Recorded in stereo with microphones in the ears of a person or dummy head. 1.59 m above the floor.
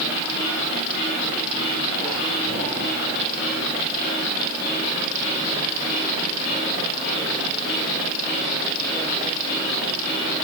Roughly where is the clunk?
I don't hear a clunk.